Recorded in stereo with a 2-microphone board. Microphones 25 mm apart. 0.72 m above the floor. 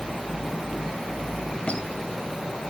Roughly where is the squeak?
Left.